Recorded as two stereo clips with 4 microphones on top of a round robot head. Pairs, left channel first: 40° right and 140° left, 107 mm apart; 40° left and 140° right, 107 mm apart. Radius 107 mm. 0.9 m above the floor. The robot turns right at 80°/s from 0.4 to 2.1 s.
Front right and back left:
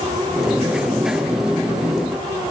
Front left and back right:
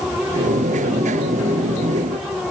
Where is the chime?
I don't hear a chime.